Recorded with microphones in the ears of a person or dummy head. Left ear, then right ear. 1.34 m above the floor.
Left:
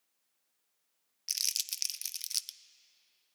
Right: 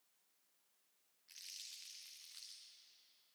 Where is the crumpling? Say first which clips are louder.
Left 19 dB; 75° left (ahead or behind), 0.6 m.